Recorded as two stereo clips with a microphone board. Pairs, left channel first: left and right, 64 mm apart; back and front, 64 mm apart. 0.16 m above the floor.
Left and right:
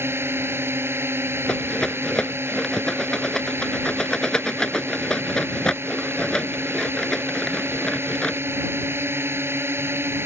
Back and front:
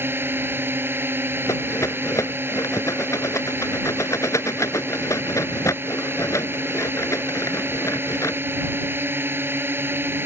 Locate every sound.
0.0 s a drone: 45° right
1.5 s a rattle: 165° left